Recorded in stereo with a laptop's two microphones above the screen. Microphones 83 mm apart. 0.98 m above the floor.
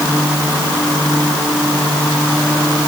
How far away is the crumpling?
No crumpling in this recording.